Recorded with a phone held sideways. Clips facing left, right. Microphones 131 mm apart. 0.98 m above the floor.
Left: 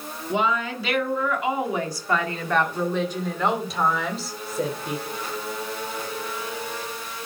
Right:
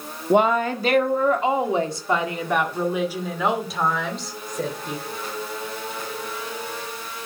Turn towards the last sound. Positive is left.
turn(degrees=10)  # may be behind; listen again after turning